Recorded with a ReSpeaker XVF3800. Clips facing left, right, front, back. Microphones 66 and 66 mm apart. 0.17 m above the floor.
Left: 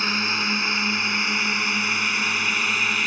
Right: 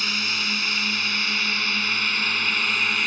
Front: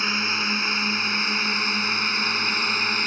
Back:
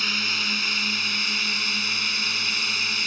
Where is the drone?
50° left; by 3.1 s 5° left.